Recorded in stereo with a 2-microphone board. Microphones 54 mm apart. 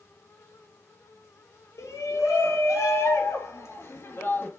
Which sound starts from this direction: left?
A shout, at 1.8 s.